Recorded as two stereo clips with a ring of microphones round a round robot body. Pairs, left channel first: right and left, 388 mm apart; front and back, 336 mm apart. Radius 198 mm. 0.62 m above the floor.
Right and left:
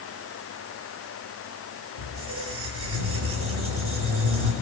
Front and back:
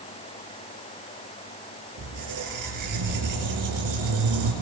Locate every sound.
2.0 s a squeak: 150° left, 5.5 m